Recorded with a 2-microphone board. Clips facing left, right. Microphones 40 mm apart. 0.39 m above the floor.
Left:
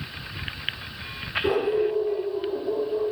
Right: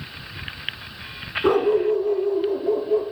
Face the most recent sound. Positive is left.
turn(degrees=-70)  # may be behind; listen again after turning